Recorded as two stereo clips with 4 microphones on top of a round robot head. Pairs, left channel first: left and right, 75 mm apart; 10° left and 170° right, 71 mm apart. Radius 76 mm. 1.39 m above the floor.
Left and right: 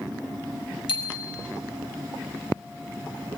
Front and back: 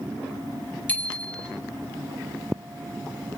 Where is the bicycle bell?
80° left, 4.5 m.